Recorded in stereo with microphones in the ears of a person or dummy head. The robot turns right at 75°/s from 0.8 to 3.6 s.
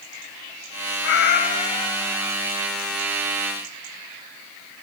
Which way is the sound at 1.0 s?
100° left.